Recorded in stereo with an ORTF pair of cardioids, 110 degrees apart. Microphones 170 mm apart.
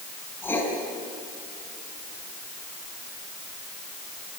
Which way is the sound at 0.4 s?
15° left.